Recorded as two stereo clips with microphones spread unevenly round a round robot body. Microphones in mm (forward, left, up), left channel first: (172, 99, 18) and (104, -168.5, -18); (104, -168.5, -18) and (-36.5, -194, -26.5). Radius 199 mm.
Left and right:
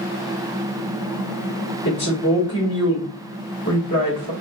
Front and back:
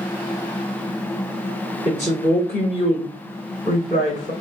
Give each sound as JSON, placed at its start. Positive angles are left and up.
{"t": 1.9, "sound": "a woman speaking", "azimuth_deg": 130, "distance_m": 1.5}